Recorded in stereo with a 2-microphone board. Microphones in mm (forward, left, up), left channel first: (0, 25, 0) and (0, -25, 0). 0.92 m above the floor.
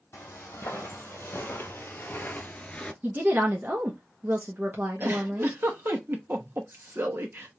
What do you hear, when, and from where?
0.1 s footsteps: 65° left (ahead or behind), 2.5 m; by 2.9 s 20° left (ahead or behind), 0.9 m
3.0 s a woman speaking: 40° right (ahead or behind), 1.1 m
5.0 s a giggle: 50° right (ahead or behind), 1.1 m